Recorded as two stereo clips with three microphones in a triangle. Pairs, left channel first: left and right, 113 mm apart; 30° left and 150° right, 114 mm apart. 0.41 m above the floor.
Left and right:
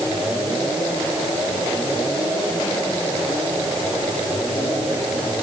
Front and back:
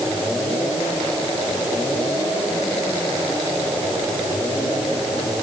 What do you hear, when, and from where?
Only background noise.